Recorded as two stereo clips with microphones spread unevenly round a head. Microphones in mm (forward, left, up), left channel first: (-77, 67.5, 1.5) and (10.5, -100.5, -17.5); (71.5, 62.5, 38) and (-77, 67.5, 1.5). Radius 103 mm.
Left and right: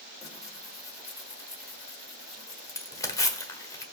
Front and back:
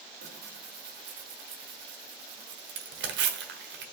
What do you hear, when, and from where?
0.2 s tearing paper: 170° right, 1.4 m